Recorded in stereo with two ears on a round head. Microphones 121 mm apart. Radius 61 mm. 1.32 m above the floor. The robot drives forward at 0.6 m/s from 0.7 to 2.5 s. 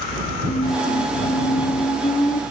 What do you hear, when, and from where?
0.5 s a squeak: 75° left (ahead or behind), 1.9 m; by 2.4 s 55° left (ahead or behind), 2 m